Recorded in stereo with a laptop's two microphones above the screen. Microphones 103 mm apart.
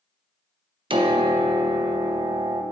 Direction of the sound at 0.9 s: 55° right (ahead or behind).